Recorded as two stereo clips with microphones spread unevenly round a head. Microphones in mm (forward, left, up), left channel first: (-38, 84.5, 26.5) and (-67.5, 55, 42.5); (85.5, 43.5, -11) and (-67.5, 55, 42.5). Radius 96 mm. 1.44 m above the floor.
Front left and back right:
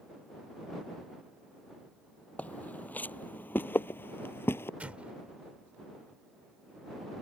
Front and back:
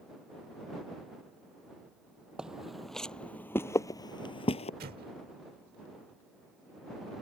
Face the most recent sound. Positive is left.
turn(degrees=180)